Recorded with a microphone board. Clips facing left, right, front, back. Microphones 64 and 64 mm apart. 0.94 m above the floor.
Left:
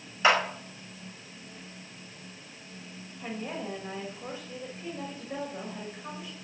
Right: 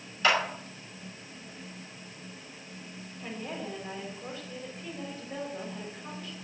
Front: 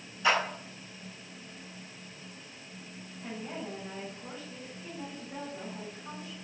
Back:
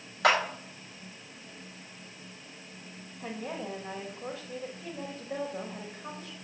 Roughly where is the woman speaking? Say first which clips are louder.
Left 2 dB, back 3 dB; behind.